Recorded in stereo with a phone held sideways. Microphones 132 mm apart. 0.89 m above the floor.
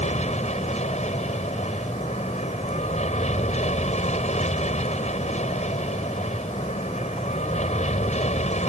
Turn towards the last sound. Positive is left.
turn(degrees=65)  # may be behind; listen again after turning